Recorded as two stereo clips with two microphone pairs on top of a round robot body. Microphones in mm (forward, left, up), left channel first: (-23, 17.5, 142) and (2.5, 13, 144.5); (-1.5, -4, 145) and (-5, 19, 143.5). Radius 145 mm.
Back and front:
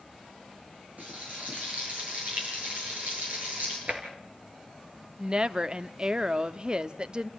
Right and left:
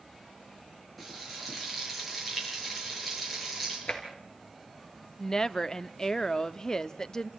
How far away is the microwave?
No microwave in this recording.